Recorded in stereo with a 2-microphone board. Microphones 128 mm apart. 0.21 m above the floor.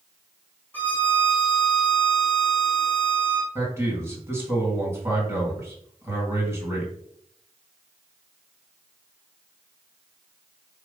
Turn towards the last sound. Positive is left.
turn(degrees=-20)  # may be behind; listen again after turning